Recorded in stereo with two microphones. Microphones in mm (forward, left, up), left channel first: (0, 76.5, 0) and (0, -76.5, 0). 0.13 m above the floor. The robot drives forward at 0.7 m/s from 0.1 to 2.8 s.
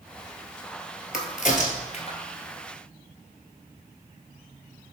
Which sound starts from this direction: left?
A crack, at 1.1 s.